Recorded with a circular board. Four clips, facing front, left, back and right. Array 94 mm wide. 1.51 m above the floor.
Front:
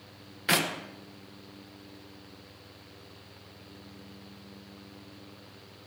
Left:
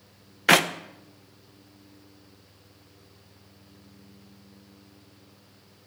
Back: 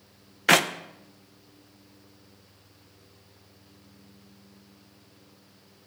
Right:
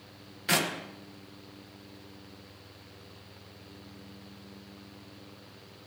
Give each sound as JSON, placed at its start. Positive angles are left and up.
{"t": 0.5, "sound": "a clap", "azimuth_deg": 125, "distance_m": 0.9}